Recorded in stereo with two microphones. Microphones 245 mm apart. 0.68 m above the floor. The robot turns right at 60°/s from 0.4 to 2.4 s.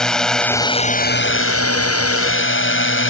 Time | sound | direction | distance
0.0 | a drone | 5° left | ?